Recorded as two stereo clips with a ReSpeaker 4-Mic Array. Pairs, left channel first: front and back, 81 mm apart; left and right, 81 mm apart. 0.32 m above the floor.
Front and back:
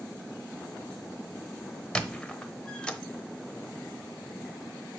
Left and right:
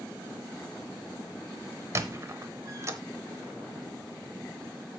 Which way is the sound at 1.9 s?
70° right.